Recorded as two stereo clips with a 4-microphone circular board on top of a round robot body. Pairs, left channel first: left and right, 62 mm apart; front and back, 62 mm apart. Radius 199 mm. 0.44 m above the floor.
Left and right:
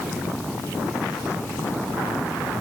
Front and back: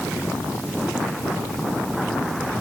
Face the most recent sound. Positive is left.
No sound to turn to.